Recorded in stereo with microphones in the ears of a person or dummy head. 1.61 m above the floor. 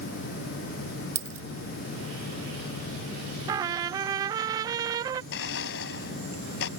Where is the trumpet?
15° right (ahead or behind).